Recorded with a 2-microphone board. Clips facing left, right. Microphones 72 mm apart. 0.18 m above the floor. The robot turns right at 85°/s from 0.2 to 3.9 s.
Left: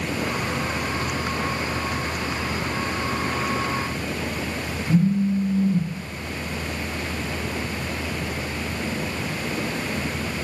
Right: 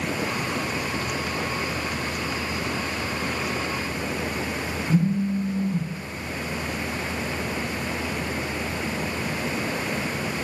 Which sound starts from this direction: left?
A phone buzzing, at 4.9 s.